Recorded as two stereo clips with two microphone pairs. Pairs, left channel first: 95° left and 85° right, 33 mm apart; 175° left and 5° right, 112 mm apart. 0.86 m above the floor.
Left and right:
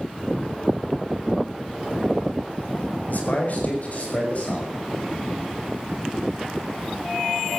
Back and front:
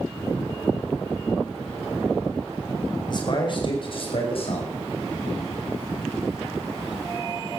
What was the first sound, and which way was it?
A man speaking, 125° left.